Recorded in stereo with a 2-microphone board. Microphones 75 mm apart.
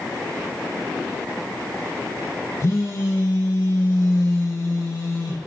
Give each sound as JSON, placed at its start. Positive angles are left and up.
{"t": 2.6, "sound": "a phone buzzing", "side_deg": 50, "distance_m": 4.5}